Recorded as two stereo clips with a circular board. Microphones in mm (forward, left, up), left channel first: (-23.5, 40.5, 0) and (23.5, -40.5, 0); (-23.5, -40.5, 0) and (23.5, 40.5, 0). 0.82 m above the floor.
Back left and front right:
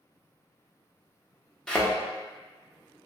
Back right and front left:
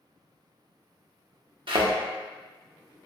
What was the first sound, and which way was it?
A thud, 40° left.